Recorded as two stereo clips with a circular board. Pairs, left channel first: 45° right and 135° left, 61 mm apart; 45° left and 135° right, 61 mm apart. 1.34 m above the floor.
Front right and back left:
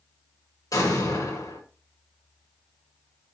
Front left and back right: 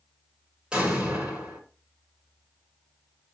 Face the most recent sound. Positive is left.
turn(degrees=-60)